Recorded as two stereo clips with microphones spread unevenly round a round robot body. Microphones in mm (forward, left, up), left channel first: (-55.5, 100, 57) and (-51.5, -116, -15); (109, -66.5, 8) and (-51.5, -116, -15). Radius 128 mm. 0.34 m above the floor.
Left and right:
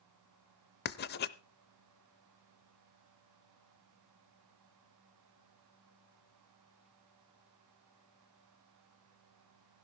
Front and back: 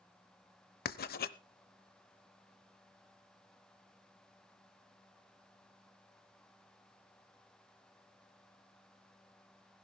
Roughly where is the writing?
Ahead left.